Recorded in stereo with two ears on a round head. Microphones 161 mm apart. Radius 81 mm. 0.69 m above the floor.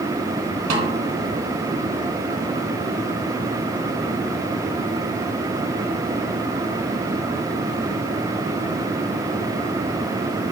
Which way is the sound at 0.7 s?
90° right.